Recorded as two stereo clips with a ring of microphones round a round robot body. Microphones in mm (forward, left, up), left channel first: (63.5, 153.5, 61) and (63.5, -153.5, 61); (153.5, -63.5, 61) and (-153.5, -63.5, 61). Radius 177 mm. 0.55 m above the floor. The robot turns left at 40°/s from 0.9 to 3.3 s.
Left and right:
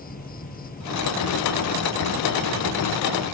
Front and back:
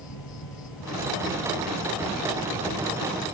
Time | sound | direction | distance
0.0 | an insect | 30° left | ?